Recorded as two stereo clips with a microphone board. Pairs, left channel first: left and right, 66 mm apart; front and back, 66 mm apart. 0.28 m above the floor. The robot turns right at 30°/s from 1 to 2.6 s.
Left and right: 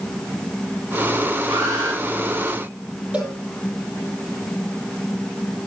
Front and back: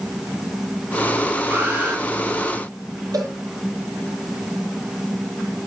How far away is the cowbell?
About 9 m.